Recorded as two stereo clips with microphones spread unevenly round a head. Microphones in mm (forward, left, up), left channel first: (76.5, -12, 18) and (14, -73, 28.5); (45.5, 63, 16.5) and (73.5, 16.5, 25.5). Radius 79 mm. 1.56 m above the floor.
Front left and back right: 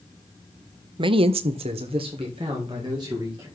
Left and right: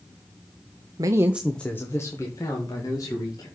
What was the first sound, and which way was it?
A man speaking, 105° right.